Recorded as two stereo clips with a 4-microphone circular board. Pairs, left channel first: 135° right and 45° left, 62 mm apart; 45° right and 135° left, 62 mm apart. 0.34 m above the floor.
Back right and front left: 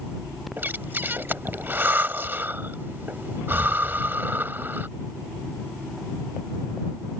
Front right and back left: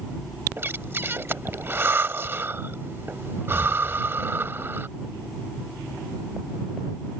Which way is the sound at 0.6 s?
95° left.